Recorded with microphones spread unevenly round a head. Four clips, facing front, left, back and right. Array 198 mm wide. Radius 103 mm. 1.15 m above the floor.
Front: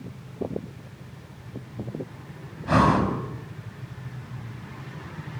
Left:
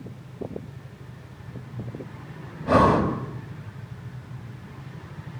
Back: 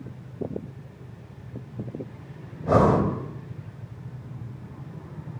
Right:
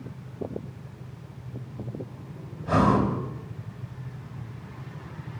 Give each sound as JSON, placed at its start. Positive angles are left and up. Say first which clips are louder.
{"t": 2.6, "sound": "breathing", "louder": "left 3 dB, back 1 dB", "azimuth_deg": 150, "distance_m": 4.5}